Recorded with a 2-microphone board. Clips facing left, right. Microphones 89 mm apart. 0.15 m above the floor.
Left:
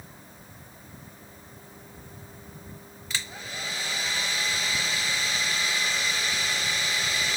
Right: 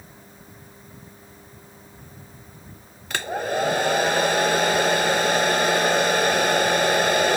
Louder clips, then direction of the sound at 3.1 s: Right 13 dB; 60° right (ahead or behind).